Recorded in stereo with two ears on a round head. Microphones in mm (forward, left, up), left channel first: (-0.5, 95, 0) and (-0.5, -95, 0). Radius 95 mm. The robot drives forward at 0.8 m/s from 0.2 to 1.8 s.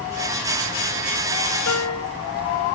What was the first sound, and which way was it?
A piano, 85° left.